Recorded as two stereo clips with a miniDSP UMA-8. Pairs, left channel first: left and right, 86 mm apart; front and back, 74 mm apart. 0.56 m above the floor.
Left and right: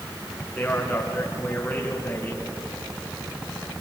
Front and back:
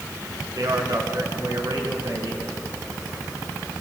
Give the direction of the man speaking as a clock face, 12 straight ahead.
7 o'clock.